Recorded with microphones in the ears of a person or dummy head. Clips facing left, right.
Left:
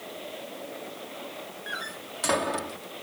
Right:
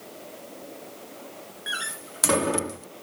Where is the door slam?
40° right (ahead or behind).